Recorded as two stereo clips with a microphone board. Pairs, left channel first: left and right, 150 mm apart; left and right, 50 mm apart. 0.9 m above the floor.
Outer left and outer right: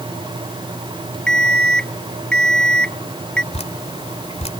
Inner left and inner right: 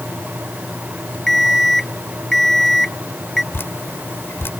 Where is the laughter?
No laughter in this recording.